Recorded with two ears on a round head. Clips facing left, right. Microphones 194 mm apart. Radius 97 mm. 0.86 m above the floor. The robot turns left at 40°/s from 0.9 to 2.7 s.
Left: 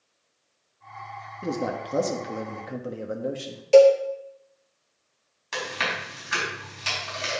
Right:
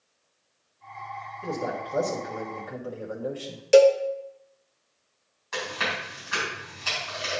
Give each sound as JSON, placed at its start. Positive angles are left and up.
{"t": 1.4, "sound": "a man speaking", "azimuth_deg": 85, "distance_m": 1.4}
{"t": 3.7, "sound": "a cowbell", "side_deg": -20, "distance_m": 0.7}
{"t": 5.5, "sound": "chewing", "side_deg": 45, "distance_m": 4.5}